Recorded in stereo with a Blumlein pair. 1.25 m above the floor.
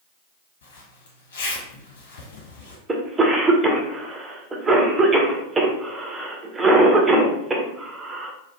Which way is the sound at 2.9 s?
15° right.